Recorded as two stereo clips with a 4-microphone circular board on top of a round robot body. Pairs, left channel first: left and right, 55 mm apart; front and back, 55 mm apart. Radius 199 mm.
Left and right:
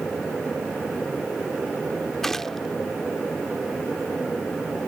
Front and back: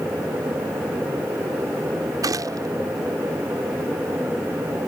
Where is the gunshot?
175° left.